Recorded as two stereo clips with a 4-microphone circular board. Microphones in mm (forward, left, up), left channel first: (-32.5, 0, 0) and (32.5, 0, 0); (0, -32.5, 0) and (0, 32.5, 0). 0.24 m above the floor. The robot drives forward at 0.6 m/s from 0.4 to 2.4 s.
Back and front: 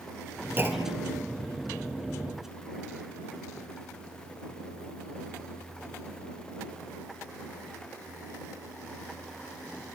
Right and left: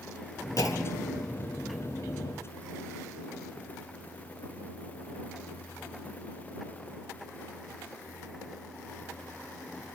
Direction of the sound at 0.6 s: 60° right.